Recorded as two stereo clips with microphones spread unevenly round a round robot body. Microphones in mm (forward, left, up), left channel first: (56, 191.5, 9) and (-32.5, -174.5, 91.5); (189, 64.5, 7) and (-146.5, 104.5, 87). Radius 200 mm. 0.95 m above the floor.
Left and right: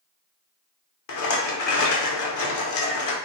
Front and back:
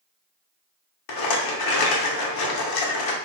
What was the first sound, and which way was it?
A rattle, 25° left.